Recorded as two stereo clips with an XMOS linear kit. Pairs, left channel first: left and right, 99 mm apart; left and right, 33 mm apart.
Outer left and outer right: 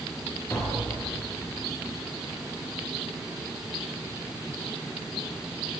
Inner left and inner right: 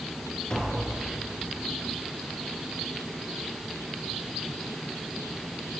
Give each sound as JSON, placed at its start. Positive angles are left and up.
{"t": 0.5, "sound": "tapping", "side_deg": 25, "distance_m": 4.0}